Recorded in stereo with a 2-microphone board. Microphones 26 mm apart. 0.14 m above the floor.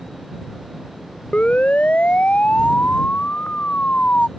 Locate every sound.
1.3 s a siren: 55° left (ahead or behind); by 4.3 s 60° left (ahead or behind)